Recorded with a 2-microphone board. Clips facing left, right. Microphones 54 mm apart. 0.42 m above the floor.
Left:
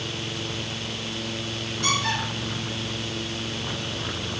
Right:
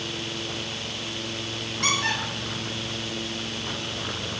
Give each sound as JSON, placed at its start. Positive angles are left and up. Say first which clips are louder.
{"t": 1.8, "sound": "a squeak", "louder": "even", "side_deg": -55, "distance_m": 4.0}